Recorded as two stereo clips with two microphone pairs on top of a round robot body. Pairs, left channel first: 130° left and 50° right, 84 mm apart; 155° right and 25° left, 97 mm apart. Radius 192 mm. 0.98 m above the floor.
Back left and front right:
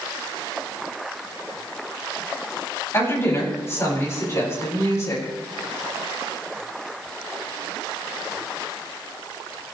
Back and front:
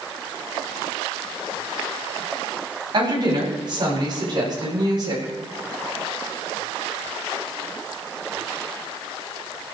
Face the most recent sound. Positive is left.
turn(degrees=75)